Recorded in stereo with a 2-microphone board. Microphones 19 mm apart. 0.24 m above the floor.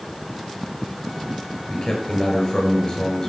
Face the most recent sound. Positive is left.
turn(degrees=30)  # may be behind; listen again after turning